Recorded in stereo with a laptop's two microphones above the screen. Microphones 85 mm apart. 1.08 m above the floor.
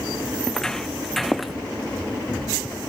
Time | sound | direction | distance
0.4 | footsteps | 10° left (ahead or behind) | ?